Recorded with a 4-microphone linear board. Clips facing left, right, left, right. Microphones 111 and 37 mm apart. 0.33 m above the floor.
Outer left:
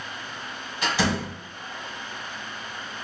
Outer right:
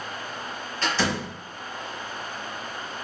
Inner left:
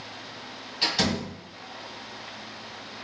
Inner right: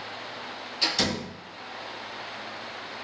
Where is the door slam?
15° left (ahead or behind), 1.7 m.